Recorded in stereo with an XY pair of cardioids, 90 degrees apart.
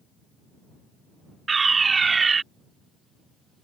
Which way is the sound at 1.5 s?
40° right.